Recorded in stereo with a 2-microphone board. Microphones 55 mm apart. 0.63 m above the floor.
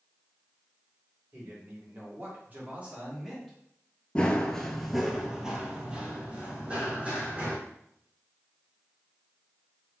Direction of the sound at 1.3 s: 55° right (ahead or behind).